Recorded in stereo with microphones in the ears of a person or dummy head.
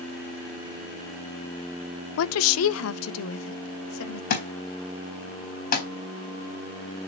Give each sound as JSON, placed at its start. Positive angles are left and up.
{"t": 2.2, "sound": "a woman speaking", "side_deg": 75, "distance_m": 0.5}
{"t": 4.3, "sound": "a thud", "side_deg": 50, "distance_m": 4.0}